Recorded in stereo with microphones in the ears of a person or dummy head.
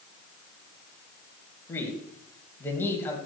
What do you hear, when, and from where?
1.7 s a man speaking: 10° left (ahead or behind), 2 m